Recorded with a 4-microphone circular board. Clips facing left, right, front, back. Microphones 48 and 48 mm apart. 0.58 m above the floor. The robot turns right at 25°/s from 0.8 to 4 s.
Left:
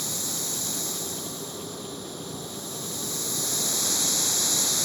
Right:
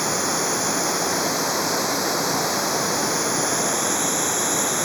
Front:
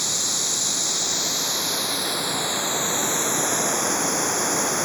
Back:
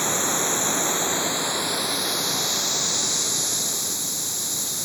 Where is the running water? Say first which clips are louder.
Right 12 dB, back 5 dB; 120° right; by 4.9 s 40° right.